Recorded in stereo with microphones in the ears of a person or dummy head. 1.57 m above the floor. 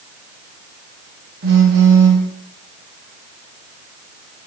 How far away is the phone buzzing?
About 4 m.